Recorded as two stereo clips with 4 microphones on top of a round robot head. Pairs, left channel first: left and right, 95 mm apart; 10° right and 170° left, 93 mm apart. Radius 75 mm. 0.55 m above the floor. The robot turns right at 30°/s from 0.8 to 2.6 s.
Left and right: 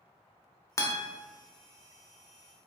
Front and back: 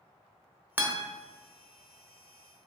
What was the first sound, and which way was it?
A guitar, 115° left.